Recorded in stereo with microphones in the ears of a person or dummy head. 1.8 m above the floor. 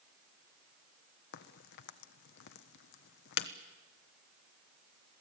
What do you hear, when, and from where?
1.3 s a crack: 65° left (ahead or behind), 1.2 m